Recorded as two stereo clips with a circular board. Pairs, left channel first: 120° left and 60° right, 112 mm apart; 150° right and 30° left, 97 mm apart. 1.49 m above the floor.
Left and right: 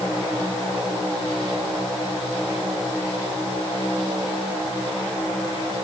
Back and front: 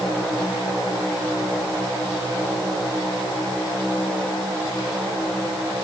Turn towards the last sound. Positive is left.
No sound to turn to.